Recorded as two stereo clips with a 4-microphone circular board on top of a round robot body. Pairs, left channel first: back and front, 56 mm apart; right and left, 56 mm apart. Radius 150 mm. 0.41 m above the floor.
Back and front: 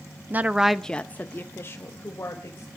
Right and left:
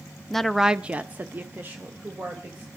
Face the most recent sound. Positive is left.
turn(degrees=145)